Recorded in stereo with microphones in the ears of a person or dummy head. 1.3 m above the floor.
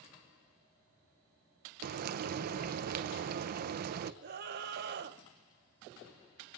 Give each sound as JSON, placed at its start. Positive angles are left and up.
{"t": 1.8, "sound": "frying", "side_deg": -50, "distance_m": 0.7}
{"t": 4.2, "sound": "a scream", "side_deg": -55, "distance_m": 1.3}